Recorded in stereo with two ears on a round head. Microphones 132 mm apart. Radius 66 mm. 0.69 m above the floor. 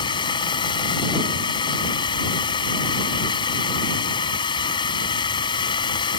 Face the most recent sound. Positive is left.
turn(degrees=30)  # may be behind; listen again after turning